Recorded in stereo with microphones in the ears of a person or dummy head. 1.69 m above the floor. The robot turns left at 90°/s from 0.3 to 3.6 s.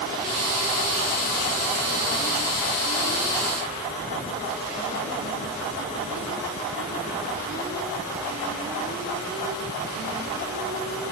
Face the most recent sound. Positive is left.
No sound to turn to.